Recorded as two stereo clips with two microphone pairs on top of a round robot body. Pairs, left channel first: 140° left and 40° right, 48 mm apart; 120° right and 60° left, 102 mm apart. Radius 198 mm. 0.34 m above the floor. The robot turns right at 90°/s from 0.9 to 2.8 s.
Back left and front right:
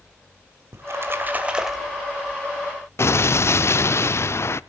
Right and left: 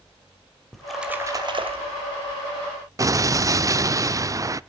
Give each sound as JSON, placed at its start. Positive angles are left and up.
{"t": 0.7, "sound": "a splash", "azimuth_deg": -30, "distance_m": 3.0}
{"t": 3.0, "sound": "an explosion", "azimuth_deg": 120, "distance_m": 0.6}